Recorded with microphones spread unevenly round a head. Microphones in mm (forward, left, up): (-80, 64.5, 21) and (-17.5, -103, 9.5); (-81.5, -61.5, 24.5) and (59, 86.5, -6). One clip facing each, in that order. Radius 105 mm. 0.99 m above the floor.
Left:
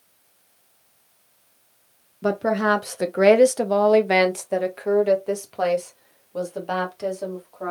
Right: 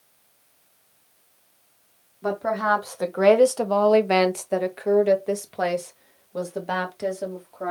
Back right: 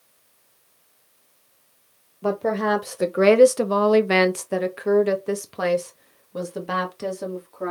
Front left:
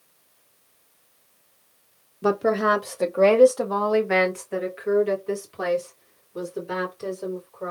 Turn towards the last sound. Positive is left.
turn(degrees=-150)